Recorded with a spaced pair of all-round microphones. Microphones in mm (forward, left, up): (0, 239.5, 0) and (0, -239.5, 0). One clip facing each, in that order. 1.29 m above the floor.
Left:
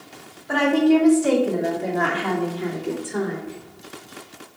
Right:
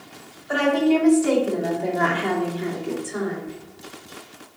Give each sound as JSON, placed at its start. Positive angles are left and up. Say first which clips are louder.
{"t": 0.5, "sound": "a woman speaking", "louder": "left 2 dB", "side_deg": 70, "distance_m": 2.5}
{"t": 3.5, "sound": "whispering", "louder": "even", "side_deg": -15, "distance_m": 1.2}